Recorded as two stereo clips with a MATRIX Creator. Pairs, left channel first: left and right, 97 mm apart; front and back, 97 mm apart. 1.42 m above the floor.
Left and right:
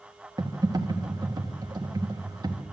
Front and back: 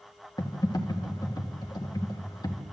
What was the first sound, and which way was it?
Typing on a keyboard, 45° right.